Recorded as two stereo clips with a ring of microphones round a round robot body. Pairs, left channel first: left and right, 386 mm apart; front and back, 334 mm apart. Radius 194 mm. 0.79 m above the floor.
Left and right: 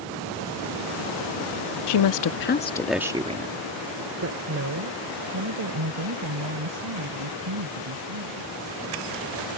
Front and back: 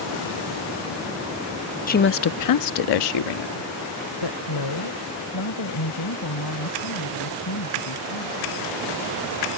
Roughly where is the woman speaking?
Ahead left.